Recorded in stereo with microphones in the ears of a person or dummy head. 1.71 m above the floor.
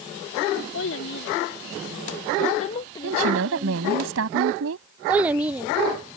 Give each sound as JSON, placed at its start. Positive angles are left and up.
{"t": 0.7, "sound": "a child speaking", "side_deg": 70}
{"t": 3.0, "sound": "a woman speaking", "side_deg": -85}
{"t": 5.1, "sound": "a child speaking", "side_deg": -5}